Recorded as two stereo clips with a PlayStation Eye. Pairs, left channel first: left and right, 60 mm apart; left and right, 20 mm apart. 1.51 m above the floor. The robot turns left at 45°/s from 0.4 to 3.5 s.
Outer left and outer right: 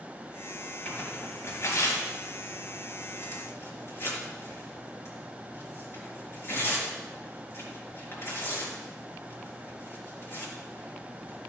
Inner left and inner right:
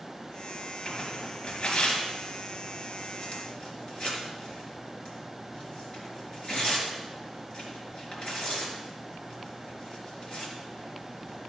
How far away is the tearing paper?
About 4 m.